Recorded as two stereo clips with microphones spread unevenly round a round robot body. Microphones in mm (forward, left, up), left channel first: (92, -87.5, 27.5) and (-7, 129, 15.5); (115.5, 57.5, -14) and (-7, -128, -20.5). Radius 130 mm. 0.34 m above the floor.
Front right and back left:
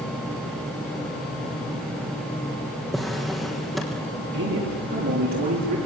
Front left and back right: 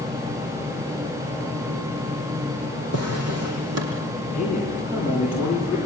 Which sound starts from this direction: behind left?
A man speaking, at 4.3 s.